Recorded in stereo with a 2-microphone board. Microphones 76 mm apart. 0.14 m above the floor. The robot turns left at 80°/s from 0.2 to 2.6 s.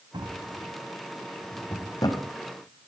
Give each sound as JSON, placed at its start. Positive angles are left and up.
{"t": 0.1, "sound": "a drawer", "side_deg": -80, "distance_m": 4.0}